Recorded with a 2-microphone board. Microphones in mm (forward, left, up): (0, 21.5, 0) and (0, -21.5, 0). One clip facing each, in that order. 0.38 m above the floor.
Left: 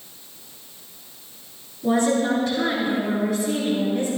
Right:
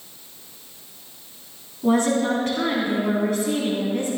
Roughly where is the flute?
I don't hear a flute.